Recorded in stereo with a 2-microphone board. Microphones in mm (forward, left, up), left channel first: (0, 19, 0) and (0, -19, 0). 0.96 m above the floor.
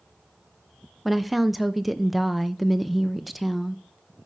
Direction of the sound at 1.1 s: Centre (ahead or behind).